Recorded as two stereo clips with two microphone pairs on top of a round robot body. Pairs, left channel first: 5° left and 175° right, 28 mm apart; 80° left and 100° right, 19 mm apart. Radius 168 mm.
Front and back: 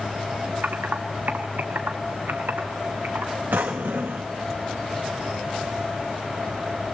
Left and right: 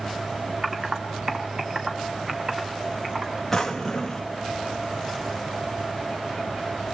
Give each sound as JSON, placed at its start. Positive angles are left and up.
{"t": 0.6, "sound": "typing on a keyboard", "azimuth_deg": -160, "distance_m": 1.4}
{"t": 3.5, "sound": "a drawer", "azimuth_deg": 165, "distance_m": 0.5}